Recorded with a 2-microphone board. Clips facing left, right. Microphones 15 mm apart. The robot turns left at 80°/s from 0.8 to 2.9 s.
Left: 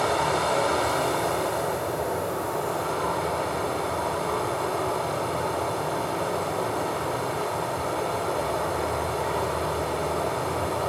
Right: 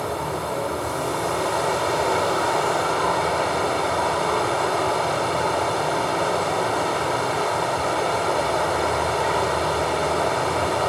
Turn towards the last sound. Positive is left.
turn(degrees=-135)